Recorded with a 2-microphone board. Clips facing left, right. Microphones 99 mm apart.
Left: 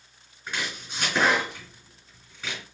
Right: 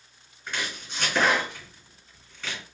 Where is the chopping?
5° left (ahead or behind), 2.5 m.